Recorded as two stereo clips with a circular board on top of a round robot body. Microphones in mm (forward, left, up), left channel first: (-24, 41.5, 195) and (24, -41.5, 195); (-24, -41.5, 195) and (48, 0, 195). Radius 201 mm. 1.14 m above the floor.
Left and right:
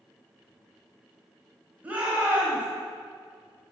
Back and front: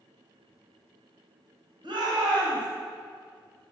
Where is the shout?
15° left, 1.9 m.